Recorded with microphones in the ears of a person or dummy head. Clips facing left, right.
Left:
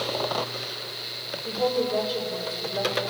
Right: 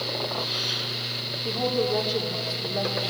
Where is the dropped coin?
I don't hear a dropped coin.